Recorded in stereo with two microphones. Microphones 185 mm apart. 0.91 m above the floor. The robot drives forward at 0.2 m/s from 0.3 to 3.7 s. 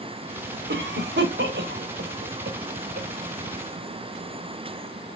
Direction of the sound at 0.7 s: 80° right.